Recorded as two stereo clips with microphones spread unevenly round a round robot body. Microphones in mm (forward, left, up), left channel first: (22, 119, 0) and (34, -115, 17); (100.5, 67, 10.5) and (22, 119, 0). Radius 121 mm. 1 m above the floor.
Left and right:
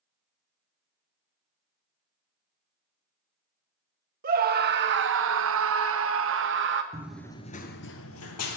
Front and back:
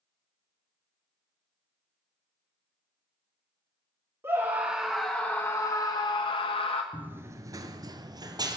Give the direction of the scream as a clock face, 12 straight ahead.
5 o'clock.